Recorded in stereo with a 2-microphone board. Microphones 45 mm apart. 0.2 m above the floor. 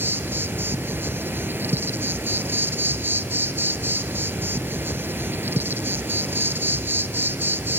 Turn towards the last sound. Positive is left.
turn(degrees=-50)  # may be behind; listen again after turning